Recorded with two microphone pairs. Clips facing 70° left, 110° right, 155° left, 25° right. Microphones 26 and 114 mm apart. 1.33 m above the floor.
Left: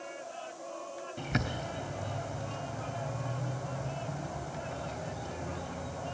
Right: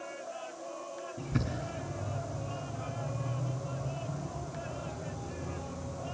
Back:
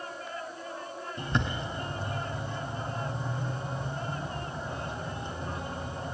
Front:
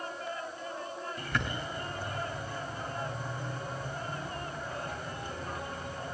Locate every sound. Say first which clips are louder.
1.2 s a bird: left 2 dB, back 5 dB; 90° left, 4 m